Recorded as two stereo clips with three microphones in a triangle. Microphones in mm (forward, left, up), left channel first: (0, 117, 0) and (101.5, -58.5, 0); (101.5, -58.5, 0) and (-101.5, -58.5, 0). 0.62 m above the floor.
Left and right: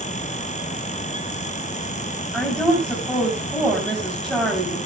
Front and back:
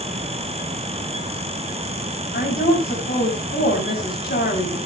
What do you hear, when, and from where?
2.3 s a woman speaking: 30° left, 3.5 m